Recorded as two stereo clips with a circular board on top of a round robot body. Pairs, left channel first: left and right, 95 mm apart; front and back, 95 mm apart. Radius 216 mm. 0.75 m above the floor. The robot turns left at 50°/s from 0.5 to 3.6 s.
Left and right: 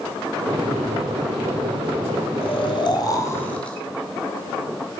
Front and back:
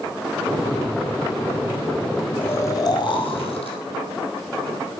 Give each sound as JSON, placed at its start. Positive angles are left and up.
{"t": 2.4, "sound": "snoring", "azimuth_deg": 70, "distance_m": 1.6}